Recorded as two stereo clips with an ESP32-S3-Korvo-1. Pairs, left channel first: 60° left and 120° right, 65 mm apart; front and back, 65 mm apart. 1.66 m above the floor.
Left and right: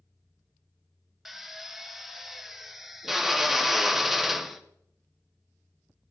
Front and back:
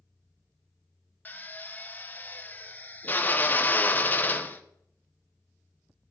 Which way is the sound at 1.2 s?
35° right.